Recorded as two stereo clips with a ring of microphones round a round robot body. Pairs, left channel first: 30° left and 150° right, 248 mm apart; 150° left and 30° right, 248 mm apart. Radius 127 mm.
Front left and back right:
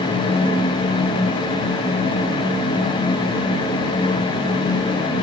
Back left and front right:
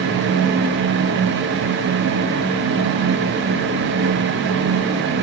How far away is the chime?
No chime in this recording.